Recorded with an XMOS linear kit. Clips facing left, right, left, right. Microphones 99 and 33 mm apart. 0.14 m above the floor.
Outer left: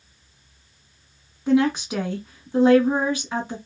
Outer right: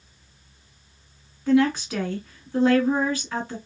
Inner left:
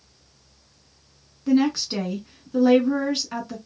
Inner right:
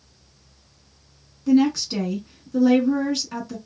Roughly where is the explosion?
I don't hear an explosion.